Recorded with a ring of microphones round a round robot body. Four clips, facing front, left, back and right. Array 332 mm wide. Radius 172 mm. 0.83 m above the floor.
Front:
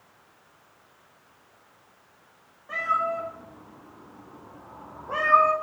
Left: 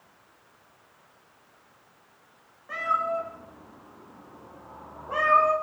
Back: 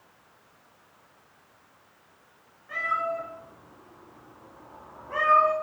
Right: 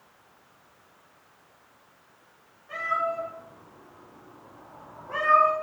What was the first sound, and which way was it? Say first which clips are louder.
A cat meowing: left 1 dB, front 3 dB; 35° left.